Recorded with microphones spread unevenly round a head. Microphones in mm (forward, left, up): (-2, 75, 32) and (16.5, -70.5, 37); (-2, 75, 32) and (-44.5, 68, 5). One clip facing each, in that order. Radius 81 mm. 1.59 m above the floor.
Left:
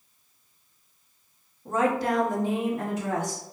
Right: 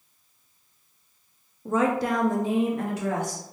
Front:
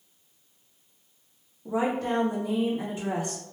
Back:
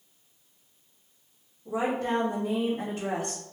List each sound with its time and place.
1.6 s a woman speaking: 60° right, 0.5 m; by 3.4 s 125° right, 1.1 m